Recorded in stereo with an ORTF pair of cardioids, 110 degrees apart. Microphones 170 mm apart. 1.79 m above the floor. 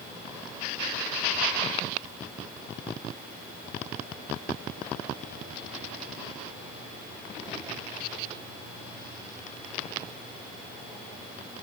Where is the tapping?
I don't hear tapping.